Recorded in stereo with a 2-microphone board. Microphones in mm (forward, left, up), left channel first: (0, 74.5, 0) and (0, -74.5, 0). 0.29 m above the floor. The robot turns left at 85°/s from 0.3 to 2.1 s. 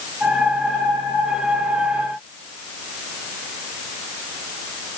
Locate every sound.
Only background noise.